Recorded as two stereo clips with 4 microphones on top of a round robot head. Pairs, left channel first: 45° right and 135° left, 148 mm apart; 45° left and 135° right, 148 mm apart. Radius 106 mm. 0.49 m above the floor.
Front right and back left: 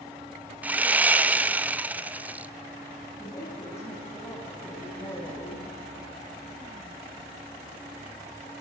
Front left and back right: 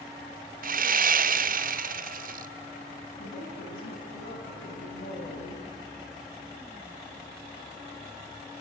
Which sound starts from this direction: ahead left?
A woman speaking, at 3.2 s.